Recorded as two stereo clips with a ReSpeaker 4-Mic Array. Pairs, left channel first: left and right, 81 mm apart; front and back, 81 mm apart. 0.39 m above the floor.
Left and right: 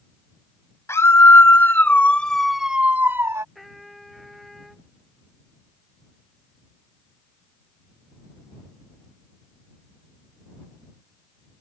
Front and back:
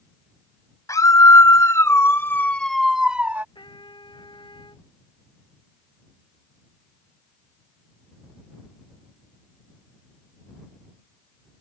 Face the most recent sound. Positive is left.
turn(degrees=0)